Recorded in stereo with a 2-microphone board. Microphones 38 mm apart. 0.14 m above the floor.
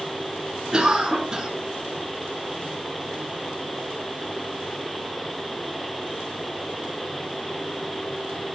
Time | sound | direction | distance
0.7 | a cough | 20° right (ahead or behind) | 1.5 m